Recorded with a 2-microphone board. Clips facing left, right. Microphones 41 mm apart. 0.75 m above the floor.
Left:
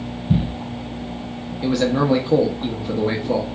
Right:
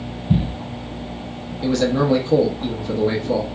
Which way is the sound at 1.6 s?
15° left (ahead or behind).